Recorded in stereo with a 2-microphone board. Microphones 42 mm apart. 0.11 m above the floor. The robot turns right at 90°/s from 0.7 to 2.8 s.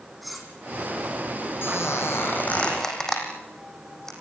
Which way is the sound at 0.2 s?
Centre (ahead or behind).